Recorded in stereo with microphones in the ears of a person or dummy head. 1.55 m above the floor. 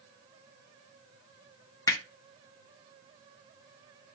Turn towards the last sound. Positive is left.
turn(degrees=20)  # may be behind; listen again after turning